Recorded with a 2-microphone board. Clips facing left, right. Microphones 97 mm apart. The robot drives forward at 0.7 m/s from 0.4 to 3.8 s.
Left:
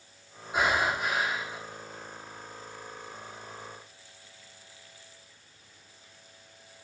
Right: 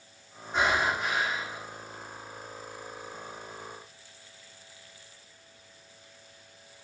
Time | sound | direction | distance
0.5 | breathing | 10° left (ahead or behind) | 6.5 m